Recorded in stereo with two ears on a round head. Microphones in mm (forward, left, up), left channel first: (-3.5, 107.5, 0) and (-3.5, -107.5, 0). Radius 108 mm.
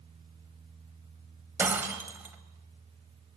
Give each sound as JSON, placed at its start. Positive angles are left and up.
{"t": 1.6, "sound": "breaking glass", "side_deg": -10, "distance_m": 1.9}